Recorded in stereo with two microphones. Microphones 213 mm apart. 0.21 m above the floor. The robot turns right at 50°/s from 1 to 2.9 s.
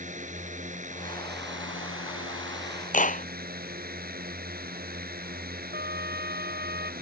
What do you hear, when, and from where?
0.0 s a drone: 140° right; by 7.0 s 45° right
2.9 s a clap: 35° left (ahead or behind)
5.7 s a trumpet: 45° right (ahead or behind)